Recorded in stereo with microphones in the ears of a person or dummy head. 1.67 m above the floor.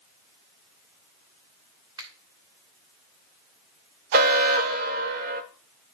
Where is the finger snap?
20° right (ahead or behind), 1.5 m.